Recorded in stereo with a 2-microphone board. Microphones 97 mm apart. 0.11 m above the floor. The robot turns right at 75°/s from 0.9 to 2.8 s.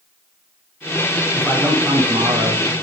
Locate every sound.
1.3 s a man speaking: 155° left, 9 m; by 2.7 s 100° right, 9 m